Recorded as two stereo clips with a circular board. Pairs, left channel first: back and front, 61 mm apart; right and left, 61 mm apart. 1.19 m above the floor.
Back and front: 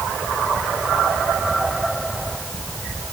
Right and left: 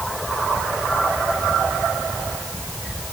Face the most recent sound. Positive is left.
No sound to turn to.